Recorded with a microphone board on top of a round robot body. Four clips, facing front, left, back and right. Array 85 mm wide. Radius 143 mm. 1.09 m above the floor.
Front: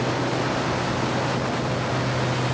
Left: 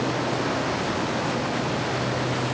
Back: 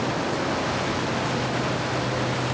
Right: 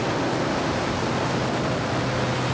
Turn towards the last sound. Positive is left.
No sound to turn to.